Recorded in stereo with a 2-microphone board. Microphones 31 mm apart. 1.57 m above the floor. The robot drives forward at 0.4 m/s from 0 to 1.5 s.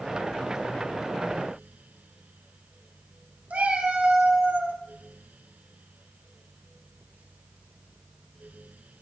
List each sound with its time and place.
3.5 s a cat meowing: 55° right (ahead or behind), 2 m